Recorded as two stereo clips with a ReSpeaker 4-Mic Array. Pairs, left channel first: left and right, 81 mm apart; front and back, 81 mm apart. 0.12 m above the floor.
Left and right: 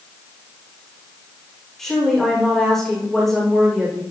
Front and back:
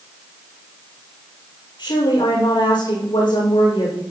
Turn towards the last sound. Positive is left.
turn(degrees=5)